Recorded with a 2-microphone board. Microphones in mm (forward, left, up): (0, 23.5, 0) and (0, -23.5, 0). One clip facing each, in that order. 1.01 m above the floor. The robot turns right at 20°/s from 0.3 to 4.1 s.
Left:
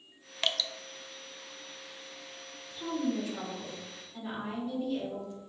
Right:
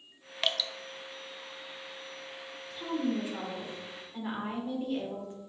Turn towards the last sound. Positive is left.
turn(degrees=-35)  # may be behind; listen again after turning